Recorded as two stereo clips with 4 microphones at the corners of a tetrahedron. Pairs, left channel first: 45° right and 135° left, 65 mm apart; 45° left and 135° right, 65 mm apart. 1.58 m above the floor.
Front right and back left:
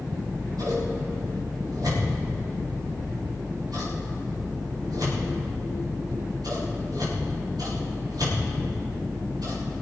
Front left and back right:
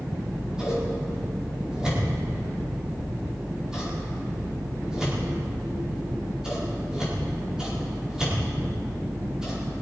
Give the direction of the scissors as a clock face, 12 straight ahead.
7 o'clock.